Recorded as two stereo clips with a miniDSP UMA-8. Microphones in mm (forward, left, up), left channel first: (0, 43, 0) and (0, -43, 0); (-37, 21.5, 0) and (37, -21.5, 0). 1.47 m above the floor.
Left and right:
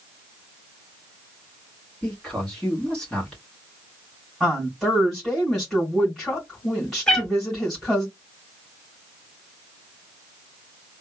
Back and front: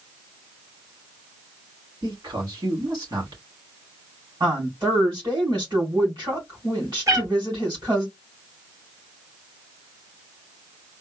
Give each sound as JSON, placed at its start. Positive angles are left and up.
{"t": 2.0, "sound": "a man speaking", "azimuth_deg": 10, "distance_m": 3.0}
{"t": 4.4, "sound": "a woman speaking", "azimuth_deg": 5, "distance_m": 2.5}
{"t": 7.1, "sound": "a cat meowing", "azimuth_deg": 15, "distance_m": 1.6}